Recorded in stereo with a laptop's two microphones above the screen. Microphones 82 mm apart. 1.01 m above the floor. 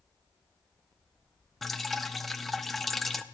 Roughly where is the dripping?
Centre.